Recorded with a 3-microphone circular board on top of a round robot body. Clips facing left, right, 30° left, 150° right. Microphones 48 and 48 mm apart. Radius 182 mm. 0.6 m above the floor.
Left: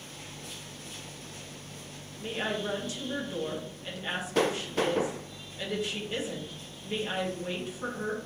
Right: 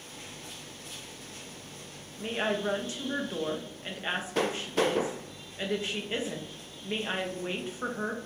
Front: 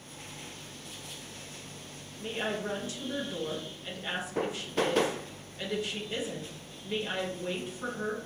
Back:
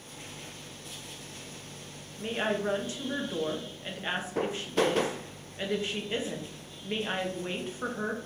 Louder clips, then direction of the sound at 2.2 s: Right 2 dB, back 3 dB; 120° right.